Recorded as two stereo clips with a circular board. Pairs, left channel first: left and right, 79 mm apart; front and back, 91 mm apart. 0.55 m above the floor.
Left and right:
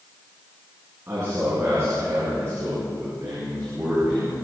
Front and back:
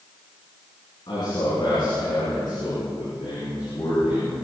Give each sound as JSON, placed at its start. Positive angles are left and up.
{"t": 1.1, "sound": "a man speaking", "azimuth_deg": -35, "distance_m": 7.0}